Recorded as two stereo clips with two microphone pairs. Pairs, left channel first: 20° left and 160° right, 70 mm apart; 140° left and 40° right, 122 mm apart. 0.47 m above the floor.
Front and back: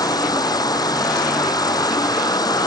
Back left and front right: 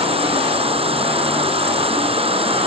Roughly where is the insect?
Ahead.